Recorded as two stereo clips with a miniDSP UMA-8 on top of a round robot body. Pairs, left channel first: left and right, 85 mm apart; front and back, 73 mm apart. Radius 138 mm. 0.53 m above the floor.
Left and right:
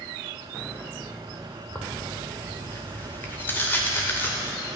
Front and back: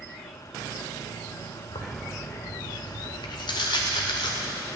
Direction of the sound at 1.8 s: 20° left.